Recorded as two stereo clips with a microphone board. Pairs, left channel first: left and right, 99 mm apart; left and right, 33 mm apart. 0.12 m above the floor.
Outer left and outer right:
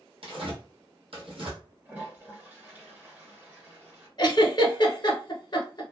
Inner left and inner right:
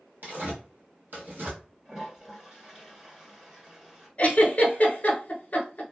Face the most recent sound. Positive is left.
turn(degrees=45)  # may be behind; listen again after turning